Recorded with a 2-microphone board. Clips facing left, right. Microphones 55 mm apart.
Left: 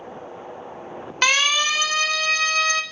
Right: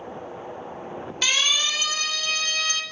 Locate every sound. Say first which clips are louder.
1.2 s a siren: left 5 dB; 60° left (ahead or behind), 2.5 m